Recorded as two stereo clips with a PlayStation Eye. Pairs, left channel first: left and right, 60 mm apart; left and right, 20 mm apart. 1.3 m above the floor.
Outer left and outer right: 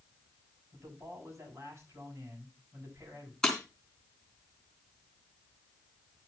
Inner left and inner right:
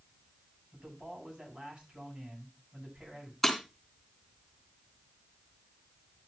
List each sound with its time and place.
0.7 s a man speaking: 50° right (ahead or behind), 10 m
3.4 s breaking glass: 10° left (ahead or behind), 3 m